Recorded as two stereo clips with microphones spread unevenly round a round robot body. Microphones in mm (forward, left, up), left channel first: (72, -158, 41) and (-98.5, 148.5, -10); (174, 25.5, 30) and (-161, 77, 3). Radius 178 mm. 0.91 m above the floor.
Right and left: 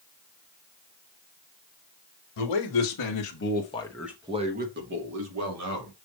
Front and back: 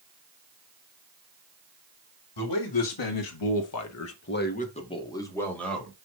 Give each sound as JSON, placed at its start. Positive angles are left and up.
{"t": 2.4, "sound": "a man speaking", "azimuth_deg": -40, "distance_m": 1.7}